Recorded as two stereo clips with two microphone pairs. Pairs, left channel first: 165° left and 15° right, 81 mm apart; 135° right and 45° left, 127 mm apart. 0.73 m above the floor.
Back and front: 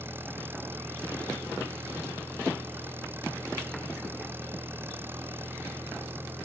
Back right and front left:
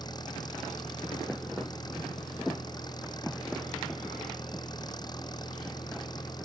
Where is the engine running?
80° right.